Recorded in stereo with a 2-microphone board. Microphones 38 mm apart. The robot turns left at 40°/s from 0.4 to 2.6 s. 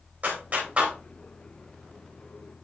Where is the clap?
50° right (ahead or behind), 2.5 m; by 0.9 s 30° right (ahead or behind), 2.5 m.